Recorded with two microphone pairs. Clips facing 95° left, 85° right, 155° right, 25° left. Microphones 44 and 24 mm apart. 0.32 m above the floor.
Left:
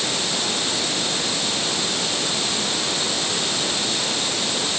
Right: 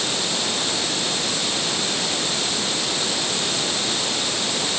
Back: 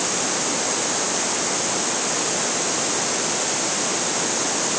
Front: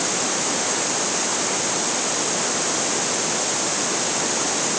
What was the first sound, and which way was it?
Only background noise.